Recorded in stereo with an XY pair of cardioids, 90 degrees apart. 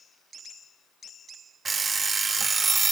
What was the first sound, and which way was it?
An alarm clock, 40° right.